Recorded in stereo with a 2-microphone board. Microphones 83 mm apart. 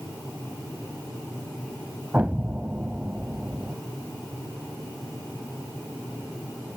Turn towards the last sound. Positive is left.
turn(degrees=-20)  # may be behind; listen again after turning